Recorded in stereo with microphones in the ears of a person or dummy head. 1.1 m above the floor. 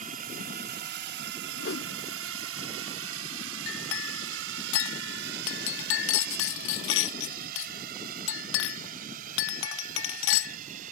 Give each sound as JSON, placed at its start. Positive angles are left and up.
{"t": 0.0, "sound": "a drone", "side_deg": -40}
{"t": 1.6, "sound": "a whoosh", "side_deg": 65}
{"t": 3.7, "sound": "a clink", "side_deg": 80}